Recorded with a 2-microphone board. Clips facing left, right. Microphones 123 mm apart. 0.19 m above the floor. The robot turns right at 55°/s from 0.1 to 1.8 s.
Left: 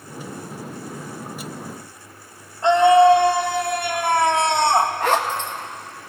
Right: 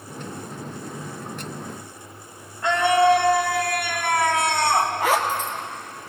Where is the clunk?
I don't hear a clunk.